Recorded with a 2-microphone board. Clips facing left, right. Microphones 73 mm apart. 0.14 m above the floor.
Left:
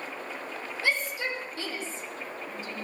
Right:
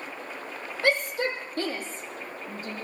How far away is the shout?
About 6 m.